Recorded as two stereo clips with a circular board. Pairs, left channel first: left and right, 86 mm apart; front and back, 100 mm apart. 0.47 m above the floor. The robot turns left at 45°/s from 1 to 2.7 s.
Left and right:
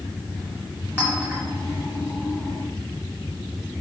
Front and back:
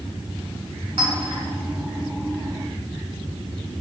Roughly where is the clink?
Behind.